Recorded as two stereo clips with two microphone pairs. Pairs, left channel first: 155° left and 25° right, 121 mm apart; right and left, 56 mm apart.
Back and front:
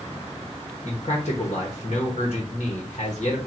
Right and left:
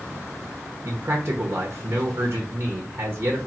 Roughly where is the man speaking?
Behind left.